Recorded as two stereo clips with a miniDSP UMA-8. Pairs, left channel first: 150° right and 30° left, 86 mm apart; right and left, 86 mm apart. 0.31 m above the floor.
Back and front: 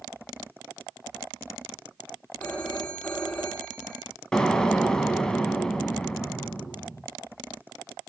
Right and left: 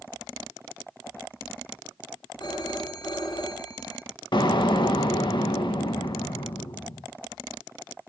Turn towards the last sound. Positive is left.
turn(degrees=-70)